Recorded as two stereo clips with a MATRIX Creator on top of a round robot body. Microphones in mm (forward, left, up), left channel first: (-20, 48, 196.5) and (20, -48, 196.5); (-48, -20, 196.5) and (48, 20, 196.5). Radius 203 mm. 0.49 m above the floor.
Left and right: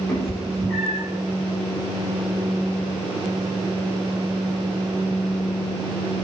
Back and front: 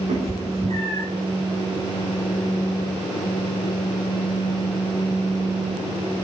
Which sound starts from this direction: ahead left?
A cat meowing, at 0.1 s.